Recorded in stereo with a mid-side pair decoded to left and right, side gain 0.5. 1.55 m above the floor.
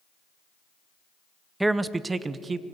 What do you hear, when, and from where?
1.6 s a man speaking: 10° right, 0.8 m; by 2.6 s 35° right, 1.4 m